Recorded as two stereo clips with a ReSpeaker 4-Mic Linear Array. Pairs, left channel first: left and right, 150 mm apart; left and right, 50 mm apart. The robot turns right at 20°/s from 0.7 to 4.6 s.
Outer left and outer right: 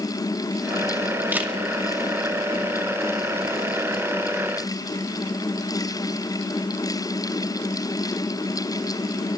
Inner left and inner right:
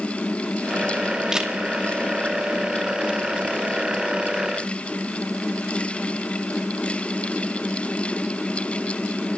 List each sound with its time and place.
1.3 s a camera shutter: 10° right (ahead or behind), 2.5 m